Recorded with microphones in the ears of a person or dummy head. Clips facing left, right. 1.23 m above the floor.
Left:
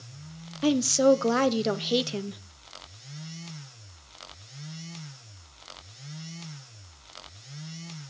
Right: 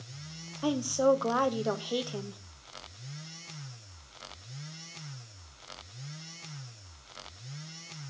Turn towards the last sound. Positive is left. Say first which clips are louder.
# left 5 dB
turn(degrees=30)  # may be behind; listen again after turning